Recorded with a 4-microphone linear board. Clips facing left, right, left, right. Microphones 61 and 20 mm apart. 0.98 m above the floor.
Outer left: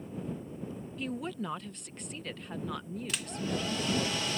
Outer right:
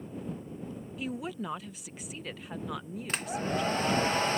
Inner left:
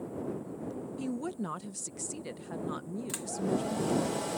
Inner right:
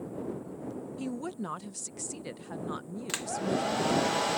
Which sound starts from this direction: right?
A hair dryer, at 3.1 s.